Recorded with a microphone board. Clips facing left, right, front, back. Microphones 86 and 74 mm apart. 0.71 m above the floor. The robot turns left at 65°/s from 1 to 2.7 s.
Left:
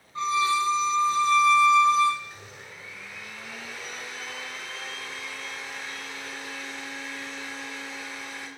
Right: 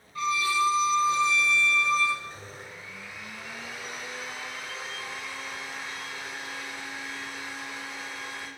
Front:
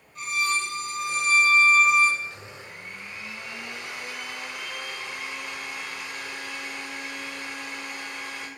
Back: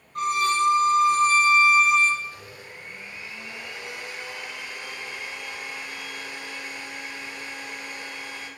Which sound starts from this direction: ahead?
A blender, at 2.2 s.